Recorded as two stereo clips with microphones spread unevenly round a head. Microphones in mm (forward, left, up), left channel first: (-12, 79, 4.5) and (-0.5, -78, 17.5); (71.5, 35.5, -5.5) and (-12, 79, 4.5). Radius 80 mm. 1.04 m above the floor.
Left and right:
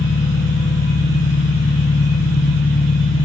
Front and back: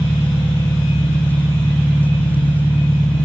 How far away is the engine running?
About 1.9 m.